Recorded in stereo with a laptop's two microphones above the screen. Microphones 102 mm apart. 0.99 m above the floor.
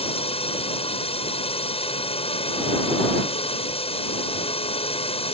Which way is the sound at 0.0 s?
70° left (ahead or behind).